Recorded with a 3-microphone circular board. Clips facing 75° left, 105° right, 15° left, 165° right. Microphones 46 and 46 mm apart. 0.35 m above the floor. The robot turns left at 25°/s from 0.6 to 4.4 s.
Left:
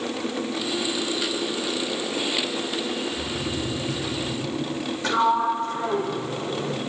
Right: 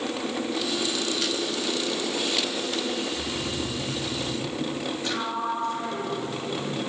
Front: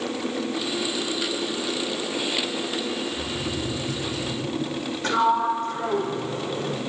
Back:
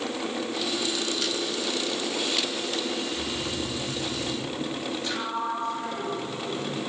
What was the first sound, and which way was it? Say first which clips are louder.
Snoring: left 1 dB, front 2 dB; 90° left.